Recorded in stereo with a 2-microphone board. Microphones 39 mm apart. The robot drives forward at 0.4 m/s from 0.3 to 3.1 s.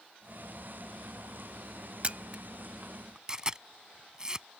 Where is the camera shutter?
35° right (ahead or behind); by 4.5 s 20° right (ahead or behind).